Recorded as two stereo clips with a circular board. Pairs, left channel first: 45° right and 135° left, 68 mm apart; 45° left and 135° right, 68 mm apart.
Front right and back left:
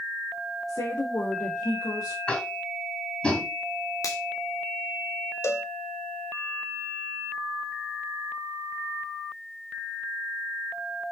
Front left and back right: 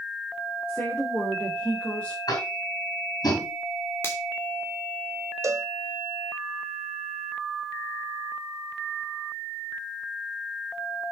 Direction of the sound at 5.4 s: 95° right.